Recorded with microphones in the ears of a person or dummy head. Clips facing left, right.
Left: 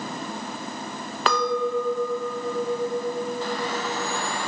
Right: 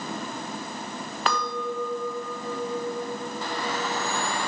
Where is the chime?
I don't hear a chime.